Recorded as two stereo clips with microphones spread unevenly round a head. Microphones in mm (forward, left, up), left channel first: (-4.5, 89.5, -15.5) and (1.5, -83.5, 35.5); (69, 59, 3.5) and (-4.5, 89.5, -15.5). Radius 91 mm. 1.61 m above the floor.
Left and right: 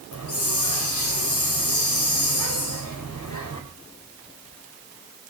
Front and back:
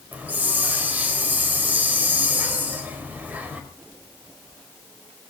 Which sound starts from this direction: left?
A hiss, at 0.1 s.